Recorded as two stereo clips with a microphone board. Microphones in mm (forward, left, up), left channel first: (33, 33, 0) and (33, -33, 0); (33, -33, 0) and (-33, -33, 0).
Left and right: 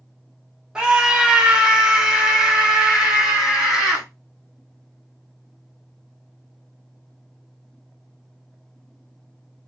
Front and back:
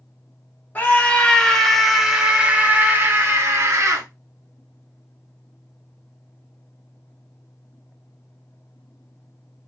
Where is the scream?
25° right, 1.5 m; by 4.0 s 170° right, 2.0 m.